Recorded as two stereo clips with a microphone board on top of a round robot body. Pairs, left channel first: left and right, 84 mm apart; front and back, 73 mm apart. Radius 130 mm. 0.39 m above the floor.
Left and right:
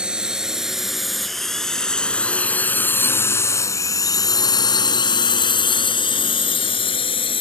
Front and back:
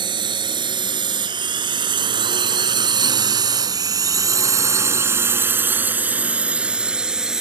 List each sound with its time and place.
0.0 s a drone: 170° right; by 7.4 s 95° left